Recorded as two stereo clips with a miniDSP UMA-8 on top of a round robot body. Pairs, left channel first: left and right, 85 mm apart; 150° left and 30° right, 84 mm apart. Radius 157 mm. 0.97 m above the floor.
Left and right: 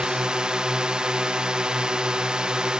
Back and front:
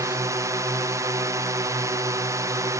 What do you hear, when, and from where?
0.0 s a drone: 15° right